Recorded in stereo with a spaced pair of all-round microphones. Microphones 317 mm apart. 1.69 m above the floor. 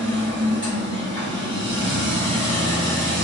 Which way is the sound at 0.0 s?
40° right (ahead or behind).